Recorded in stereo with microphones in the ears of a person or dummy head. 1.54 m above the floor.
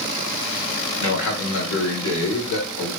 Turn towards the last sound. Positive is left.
turn(degrees=85)